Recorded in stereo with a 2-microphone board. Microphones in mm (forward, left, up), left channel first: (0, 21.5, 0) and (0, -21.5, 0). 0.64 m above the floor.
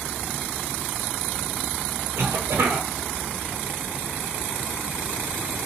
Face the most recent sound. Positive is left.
turn(degrees=-70)  # may be behind; listen again after turning